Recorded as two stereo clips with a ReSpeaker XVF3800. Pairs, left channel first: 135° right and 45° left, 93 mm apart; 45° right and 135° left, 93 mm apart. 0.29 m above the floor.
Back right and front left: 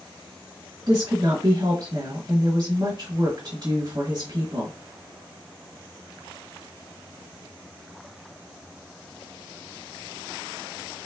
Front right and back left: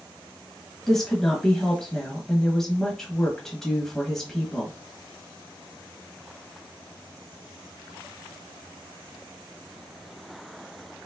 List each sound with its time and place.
0.9 s a woman speaking: 40° left, 1.3 m